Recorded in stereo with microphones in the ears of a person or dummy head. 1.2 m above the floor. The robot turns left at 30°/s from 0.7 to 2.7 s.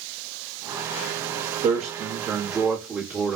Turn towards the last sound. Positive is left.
turn(degrees=-165)